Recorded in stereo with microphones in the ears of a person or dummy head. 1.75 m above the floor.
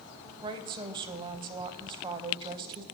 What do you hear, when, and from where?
0.4 s a woman speaking: 20° right (ahead or behind), 0.8 m